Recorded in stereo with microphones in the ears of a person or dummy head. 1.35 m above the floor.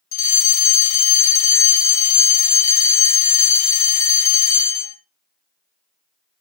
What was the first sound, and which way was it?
A fire alarm, 15° left (ahead or behind).